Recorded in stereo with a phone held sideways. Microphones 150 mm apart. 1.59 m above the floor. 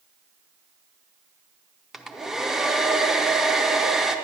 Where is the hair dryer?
5° right (ahead or behind), 0.7 m.